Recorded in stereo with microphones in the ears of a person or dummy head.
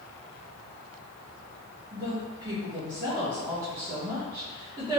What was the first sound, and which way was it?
A woman speaking, 20° right (ahead or behind).